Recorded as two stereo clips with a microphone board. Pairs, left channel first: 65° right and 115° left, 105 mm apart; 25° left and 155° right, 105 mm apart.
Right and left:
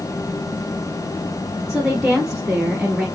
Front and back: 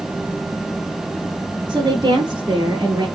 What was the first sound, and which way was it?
A woman speaking, 165° right.